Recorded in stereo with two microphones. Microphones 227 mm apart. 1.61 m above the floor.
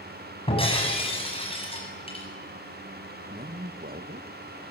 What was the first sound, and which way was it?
Breaking glass, 25° left (ahead or behind).